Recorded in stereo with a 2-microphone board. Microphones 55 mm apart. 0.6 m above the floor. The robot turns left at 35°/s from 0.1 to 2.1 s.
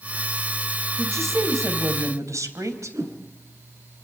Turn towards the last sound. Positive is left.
turn(degrees=-90)